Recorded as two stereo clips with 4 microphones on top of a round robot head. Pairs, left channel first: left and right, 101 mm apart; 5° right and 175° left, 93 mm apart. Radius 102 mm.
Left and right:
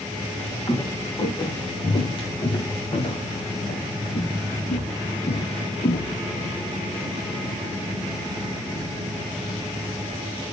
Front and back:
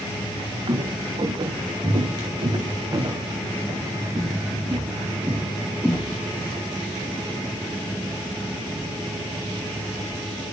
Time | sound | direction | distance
0.7 | footsteps | 135° left | 3 m